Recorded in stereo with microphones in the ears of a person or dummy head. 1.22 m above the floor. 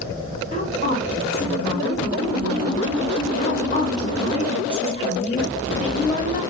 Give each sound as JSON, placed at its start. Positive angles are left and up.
{"t": 0.5, "sound": "a woman speaking", "side_deg": 40, "distance_m": 3.5}